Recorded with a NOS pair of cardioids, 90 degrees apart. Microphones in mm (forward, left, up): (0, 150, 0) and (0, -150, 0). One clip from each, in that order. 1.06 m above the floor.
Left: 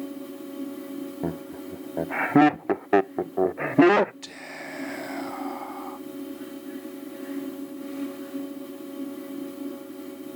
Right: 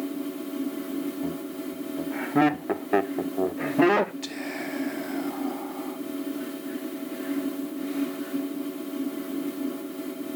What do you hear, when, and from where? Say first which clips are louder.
0.0 s a fan: right 4 dB; 50° right, 1.3 m
1.2 s laughter: even; 40° left, 0.6 m
4.2 s whispering: right 5 dB; 15° left, 1.1 m